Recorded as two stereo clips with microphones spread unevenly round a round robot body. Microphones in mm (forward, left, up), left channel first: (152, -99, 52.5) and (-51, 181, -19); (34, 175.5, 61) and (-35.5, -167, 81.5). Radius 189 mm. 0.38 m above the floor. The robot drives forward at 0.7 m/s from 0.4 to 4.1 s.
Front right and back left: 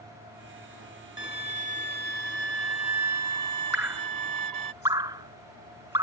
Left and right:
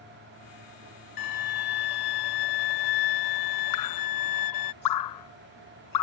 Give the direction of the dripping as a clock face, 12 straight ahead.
11 o'clock.